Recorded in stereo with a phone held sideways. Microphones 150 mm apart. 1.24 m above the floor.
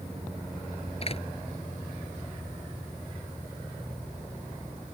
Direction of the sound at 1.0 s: 40° left (ahead or behind).